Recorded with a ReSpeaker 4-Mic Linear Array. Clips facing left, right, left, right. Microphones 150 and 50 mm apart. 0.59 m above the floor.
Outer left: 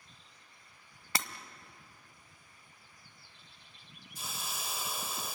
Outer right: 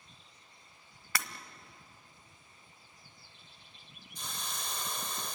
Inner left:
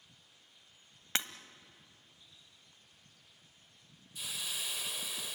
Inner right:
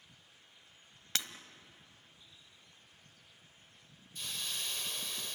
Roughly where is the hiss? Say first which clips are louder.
Even, even; centre.